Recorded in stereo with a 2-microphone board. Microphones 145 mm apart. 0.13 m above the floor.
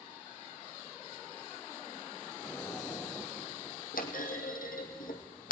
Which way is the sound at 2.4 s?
15° left (ahead or behind).